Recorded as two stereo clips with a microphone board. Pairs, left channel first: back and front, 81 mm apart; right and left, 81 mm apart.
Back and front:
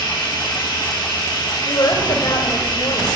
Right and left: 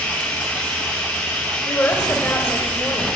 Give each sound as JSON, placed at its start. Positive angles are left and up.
{"t": 0.0, "sound": "running water", "azimuth_deg": -165, "distance_m": 6.0}
{"t": 1.6, "sound": "a woman speaking", "azimuth_deg": -155, "distance_m": 3.5}